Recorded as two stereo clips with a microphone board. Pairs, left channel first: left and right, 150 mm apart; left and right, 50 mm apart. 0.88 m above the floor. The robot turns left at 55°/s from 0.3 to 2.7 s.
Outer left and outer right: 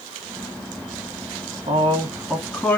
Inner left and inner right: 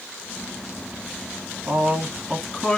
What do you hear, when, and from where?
1.7 s a man speaking: 135° right, 1.5 m; by 2.8 s 170° left, 1.5 m